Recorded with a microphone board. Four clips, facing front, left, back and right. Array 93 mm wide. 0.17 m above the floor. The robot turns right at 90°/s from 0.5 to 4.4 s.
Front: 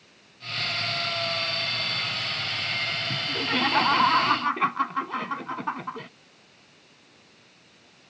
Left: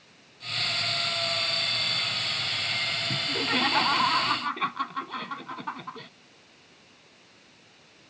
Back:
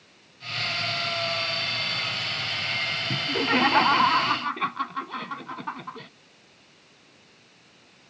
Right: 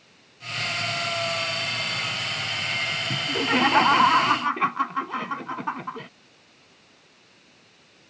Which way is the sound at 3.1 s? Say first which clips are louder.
Right 6 dB, back 6 dB; 170° right.